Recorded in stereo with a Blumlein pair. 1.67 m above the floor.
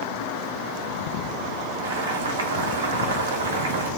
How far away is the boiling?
About 1.0 m.